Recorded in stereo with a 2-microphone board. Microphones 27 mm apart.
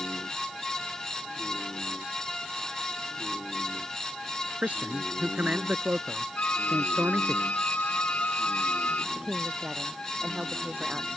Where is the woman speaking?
40° right (ahead or behind).